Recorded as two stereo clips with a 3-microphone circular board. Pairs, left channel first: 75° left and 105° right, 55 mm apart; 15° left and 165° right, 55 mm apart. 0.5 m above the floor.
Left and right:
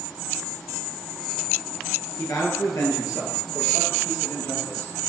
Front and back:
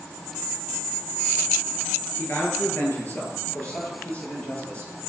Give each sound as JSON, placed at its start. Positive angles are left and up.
{"t": 2.2, "sound": "a man speaking", "azimuth_deg": 70, "distance_m": 8.5}